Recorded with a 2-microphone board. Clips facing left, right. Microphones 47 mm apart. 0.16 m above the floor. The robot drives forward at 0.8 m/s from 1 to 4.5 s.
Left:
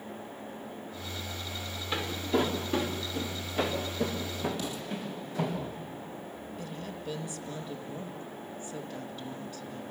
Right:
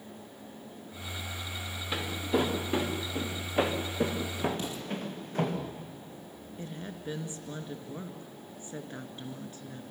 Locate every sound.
1.9 s footsteps: 5° right (ahead or behind), 3 m; by 5.6 s 50° right (ahead or behind), 4.5 m
4.6 s an explosion: 30° right (ahead or behind), 4.5 m
6.6 s a woman speaking: 35° right (ahead or behind), 2.5 m